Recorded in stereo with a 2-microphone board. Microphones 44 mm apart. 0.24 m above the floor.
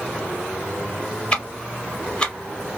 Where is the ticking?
25° left (ahead or behind), 0.8 m.